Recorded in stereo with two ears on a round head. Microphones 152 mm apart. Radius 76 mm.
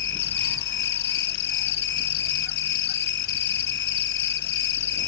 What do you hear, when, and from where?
0.0 s an insect: 75° left (ahead or behind)